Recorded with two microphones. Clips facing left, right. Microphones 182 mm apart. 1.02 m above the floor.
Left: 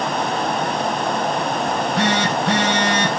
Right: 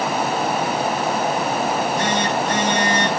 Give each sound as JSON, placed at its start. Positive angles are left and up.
{"t": 1.7, "sound": "a phone buzzing", "side_deg": 75, "distance_m": 3.5}